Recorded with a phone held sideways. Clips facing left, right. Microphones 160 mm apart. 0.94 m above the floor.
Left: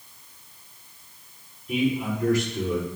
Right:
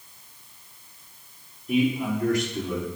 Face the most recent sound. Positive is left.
turn(degrees=-65)  # may be behind; listen again after turning